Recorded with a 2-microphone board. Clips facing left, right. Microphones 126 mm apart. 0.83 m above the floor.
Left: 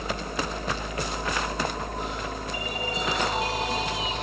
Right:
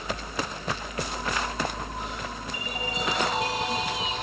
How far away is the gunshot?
No gunshot in this recording.